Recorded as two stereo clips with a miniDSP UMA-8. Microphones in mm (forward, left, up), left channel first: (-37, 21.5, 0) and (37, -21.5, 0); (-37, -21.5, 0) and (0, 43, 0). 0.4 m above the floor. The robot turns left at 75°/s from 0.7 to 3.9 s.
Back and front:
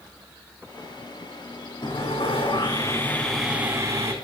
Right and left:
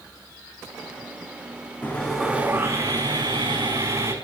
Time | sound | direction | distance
1.8 | sawing | straight behind | 5.5 m